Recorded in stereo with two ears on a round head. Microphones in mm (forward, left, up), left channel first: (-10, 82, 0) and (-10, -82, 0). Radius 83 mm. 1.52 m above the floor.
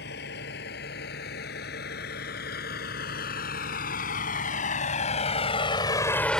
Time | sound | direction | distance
0.0 | a vehicle | 55° left (ahead or behind) | ?